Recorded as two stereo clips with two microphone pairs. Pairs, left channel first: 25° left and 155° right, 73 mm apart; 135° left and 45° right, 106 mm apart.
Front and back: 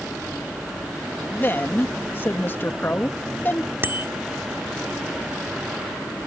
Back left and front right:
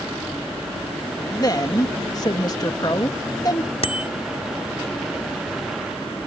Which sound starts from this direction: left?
A woman speaking, at 1.3 s.